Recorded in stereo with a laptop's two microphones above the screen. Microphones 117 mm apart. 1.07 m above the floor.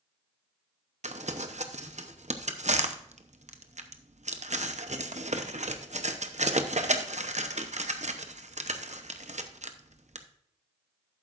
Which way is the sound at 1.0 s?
80° right.